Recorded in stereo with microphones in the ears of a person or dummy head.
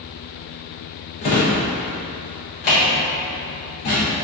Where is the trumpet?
No trumpet in this recording.